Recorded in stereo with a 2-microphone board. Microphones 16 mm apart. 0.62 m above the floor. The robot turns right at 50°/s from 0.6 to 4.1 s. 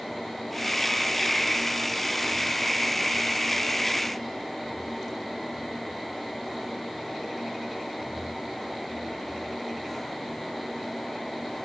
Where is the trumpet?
I don't hear a trumpet.